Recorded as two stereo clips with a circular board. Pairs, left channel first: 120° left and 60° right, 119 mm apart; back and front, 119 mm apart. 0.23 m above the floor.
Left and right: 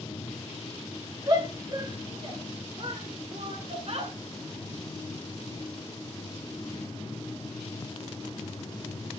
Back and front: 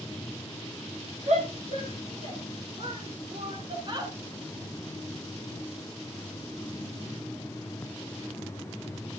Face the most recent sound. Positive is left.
turn(degrees=-45)